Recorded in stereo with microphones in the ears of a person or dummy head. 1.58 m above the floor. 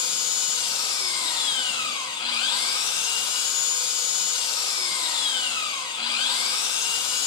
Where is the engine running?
25° left (ahead or behind), 1.5 m.